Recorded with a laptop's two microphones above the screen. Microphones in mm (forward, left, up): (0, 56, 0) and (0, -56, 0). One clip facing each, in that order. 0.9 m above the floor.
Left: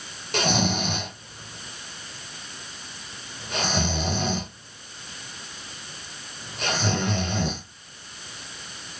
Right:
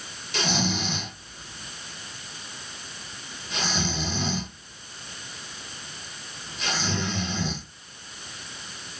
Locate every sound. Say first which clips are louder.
0.3 s snoring: left 3 dB; 55° left (ahead or behind), 1.0 m